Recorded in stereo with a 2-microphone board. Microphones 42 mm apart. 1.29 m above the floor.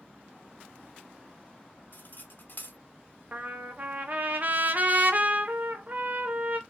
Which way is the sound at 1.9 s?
45° left (ahead or behind).